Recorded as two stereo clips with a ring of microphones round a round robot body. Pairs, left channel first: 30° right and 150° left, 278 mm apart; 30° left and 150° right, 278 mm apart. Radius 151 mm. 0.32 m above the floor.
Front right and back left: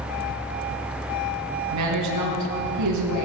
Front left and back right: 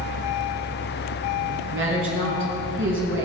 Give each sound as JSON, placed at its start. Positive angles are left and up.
{"t": 1.7, "sound": "a woman speaking", "azimuth_deg": 165, "distance_m": 4.0}